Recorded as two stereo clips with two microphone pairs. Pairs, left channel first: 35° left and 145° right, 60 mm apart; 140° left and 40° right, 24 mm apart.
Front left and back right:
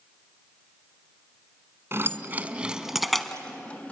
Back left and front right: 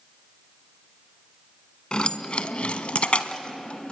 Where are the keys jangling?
Straight behind, 1.4 m; by 3.9 s 95° left, 1.7 m.